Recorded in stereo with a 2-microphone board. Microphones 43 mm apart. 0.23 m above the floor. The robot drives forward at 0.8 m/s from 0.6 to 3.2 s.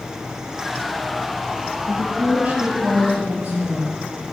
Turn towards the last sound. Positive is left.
turn(degrees=-35)  # may be behind; listen again after turning